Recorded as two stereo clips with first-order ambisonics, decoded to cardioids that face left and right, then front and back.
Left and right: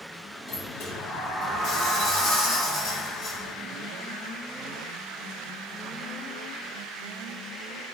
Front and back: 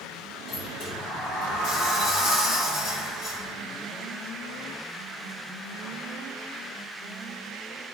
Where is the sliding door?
50° left, 0.9 m.